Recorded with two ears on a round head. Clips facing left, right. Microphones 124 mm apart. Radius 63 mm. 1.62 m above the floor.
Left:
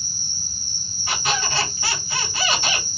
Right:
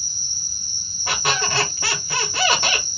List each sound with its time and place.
0.0 s an insect: 25° left (ahead or behind), 1.2 m
1.1 s a squeak: 45° right (ahead or behind), 1.1 m